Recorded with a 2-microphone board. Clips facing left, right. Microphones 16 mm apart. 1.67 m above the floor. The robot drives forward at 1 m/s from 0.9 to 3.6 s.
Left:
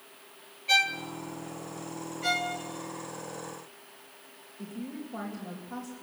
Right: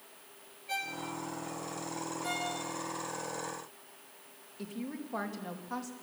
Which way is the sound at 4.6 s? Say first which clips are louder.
Left 1 dB; 80° right.